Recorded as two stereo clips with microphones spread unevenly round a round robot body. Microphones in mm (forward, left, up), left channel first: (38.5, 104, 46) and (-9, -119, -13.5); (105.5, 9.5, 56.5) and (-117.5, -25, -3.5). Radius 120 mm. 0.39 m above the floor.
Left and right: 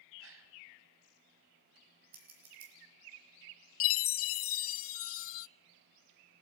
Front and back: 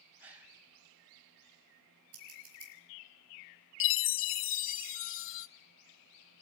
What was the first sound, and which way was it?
A gasp, 95° right.